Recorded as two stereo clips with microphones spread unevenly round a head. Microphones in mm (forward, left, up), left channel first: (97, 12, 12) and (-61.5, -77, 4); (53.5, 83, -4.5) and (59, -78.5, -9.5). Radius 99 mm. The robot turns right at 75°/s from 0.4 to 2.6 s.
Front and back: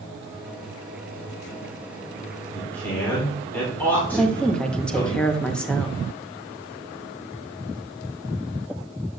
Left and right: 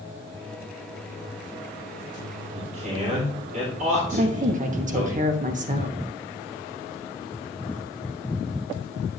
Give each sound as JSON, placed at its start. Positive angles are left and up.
{"t": 2.5, "sound": "a man speaking", "azimuth_deg": -55, "distance_m": 3.5}
{"t": 4.1, "sound": "a woman speaking", "azimuth_deg": -55, "distance_m": 1.2}